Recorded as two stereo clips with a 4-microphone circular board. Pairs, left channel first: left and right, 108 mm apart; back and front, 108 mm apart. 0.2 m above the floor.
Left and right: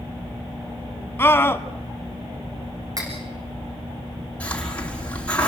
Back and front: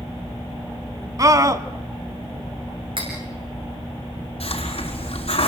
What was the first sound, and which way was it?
A scream, 35° left.